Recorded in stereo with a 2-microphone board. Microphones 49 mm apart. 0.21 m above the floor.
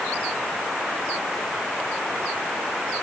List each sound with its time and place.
Only background noise.